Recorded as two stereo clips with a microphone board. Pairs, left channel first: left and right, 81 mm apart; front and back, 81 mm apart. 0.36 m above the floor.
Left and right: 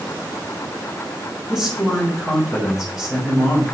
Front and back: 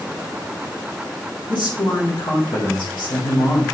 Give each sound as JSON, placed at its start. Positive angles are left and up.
{"t": 1.5, "sound": "a man speaking", "azimuth_deg": -5, "distance_m": 4.5}